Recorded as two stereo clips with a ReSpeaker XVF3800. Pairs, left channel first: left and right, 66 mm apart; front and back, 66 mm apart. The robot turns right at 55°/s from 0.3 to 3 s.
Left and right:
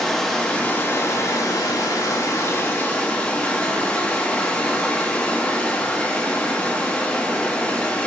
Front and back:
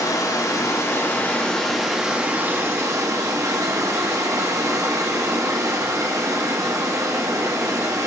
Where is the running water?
5° left, 1.1 m; by 8.1 s 155° left, 1.1 m.